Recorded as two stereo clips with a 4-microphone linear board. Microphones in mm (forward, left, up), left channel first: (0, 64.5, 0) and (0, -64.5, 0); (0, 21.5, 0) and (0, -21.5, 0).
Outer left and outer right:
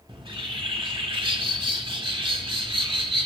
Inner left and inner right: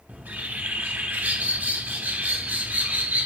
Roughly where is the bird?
Right.